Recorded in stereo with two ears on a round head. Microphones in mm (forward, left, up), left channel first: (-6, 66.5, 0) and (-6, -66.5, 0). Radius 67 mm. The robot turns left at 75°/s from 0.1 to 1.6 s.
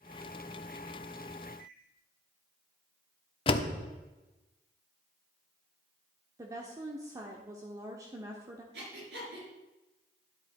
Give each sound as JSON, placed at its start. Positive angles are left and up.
{"t": 1.6, "sound": "a microwave", "side_deg": -75, "distance_m": 4.5}
{"t": 3.5, "sound": "a door slam", "side_deg": 35, "distance_m": 1.0}
{"t": 6.4, "sound": "a woman speaking", "side_deg": -20, "distance_m": 1.2}
{"t": 8.7, "sound": "breathing", "side_deg": -80, "distance_m": 5.5}